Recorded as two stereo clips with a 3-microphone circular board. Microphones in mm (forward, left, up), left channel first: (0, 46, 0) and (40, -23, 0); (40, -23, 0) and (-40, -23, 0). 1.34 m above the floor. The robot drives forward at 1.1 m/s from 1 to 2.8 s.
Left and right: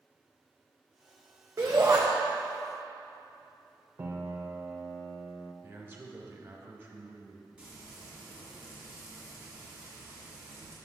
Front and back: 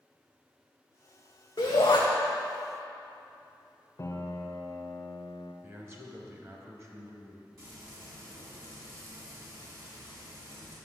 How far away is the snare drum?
I don't hear a snare drum.